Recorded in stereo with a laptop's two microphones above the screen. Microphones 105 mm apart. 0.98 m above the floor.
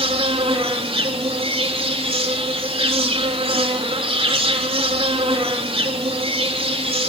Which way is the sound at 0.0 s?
60° right (ahead or behind).